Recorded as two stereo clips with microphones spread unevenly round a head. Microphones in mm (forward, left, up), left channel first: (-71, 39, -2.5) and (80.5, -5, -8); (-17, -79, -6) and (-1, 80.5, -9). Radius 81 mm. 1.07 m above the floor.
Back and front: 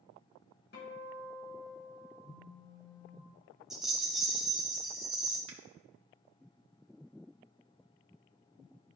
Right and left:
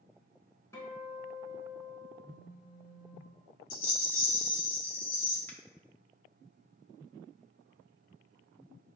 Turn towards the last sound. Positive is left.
turn(degrees=-15)